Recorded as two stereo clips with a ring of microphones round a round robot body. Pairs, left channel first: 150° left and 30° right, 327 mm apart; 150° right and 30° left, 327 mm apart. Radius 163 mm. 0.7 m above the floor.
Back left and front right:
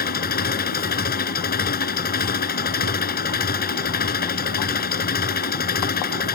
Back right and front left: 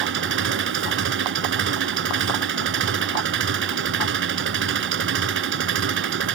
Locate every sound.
0.0 s an engine running: 85° left